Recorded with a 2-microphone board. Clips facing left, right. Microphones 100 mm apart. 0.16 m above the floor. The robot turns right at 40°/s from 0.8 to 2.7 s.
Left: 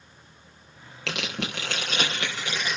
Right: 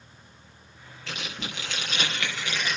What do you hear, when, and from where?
1.1 s tearing paper: 105° left, 5.5 m; by 2.8 s 170° left, 5.5 m